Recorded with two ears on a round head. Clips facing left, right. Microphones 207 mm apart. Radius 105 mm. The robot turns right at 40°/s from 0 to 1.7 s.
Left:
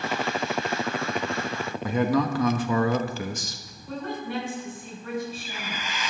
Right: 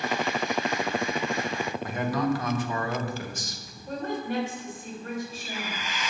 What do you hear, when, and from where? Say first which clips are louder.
1.8 s a man speaking: left 5 dB; 70° left (ahead or behind), 1.4 m
3.9 s a woman speaking: right 2 dB; 45° right (ahead or behind), 5.5 m